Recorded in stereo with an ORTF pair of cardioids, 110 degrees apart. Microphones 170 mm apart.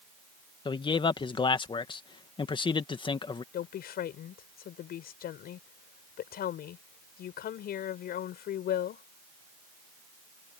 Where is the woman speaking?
65° left.